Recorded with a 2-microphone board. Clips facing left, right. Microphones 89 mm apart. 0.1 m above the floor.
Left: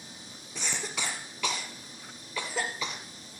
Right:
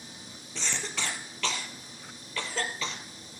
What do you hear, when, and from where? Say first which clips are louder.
0.6 s a cough: even; 15° left (ahead or behind), 2 m